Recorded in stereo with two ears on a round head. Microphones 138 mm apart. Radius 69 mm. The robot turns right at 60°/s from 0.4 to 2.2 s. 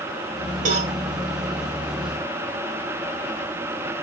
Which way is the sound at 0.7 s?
50° right (ahead or behind).